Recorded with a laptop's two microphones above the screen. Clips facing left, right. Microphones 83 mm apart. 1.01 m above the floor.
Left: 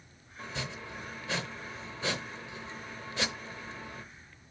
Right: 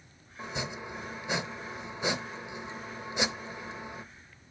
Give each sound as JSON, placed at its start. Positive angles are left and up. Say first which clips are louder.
{"t": 0.4, "sound": "chopping", "louder": "right 3 dB", "side_deg": -15, "distance_m": 0.7}